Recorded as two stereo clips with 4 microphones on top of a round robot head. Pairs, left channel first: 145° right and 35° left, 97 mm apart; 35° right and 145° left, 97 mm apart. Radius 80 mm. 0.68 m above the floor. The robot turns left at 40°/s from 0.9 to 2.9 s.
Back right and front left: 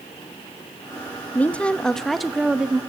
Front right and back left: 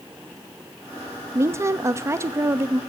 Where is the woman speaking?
160° left, 0.8 m; by 2.8 s 105° left, 0.8 m.